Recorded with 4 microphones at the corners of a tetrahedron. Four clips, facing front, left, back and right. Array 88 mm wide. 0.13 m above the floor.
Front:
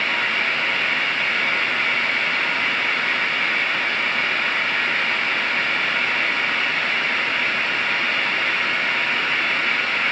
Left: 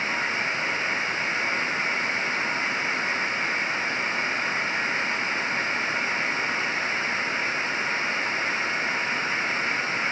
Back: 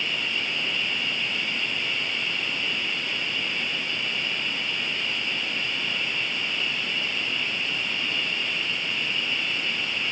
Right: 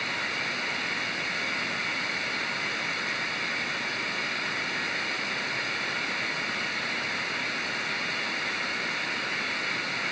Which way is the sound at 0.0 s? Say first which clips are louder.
Left 5 dB, front 8 dB; 15° left.